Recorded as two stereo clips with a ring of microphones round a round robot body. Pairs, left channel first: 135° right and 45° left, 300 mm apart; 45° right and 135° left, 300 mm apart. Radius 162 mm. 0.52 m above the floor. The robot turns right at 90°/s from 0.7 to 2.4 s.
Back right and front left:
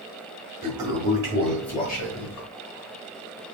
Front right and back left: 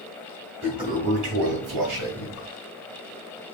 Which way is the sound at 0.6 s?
50° left.